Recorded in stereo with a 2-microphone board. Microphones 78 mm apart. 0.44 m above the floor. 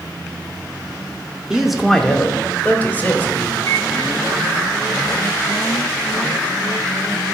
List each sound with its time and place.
1.5 s a man speaking: 10° right (ahead or behind), 0.8 m; by 3.5 s 25° left (ahead or behind), 1.9 m
3.6 s a microwave: 35° left (ahead or behind), 4.5 m